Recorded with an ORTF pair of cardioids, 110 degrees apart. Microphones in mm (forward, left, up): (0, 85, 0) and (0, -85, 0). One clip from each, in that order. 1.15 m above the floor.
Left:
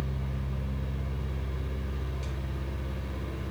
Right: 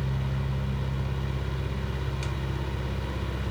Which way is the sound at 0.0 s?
65° right.